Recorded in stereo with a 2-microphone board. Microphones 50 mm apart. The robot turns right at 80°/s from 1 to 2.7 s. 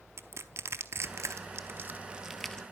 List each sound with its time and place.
0.2 s crushing: 60° right (ahead or behind), 0.7 m; by 2.6 s 20° left (ahead or behind), 0.7 m